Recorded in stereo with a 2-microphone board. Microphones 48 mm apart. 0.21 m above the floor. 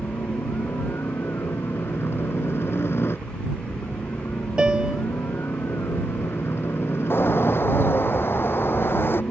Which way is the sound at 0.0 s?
60° left (ahead or behind).